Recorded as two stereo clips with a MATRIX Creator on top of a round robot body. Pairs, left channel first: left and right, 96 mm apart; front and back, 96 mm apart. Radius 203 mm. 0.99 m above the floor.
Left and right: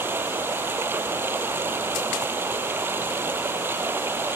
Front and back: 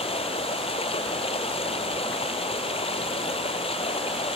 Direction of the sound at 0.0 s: 20° right.